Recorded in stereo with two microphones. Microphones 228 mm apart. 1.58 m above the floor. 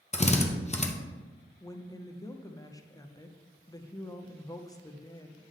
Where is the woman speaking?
15° left (ahead or behind), 0.6 m.